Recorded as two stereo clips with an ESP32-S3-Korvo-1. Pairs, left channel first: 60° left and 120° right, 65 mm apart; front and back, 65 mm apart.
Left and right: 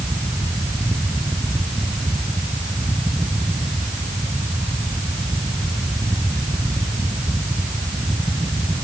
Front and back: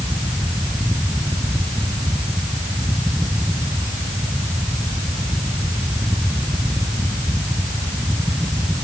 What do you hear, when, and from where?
Only background noise.